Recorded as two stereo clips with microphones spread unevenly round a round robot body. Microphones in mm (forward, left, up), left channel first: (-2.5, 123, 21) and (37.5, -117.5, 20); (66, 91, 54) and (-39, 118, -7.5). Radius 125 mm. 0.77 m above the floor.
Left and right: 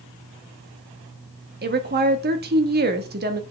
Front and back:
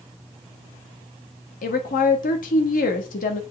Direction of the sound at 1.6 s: 40° right.